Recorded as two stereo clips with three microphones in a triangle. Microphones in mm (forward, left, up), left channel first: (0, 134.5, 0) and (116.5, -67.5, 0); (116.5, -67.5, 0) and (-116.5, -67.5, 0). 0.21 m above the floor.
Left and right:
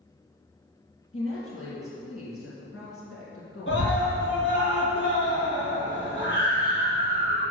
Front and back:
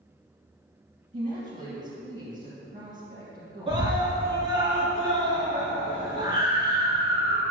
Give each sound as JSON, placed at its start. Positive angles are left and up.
{"t": 1.1, "sound": "a woman speaking", "azimuth_deg": 130, "distance_m": 2.5}
{"t": 3.7, "sound": "a scream", "azimuth_deg": 120, "distance_m": 2.5}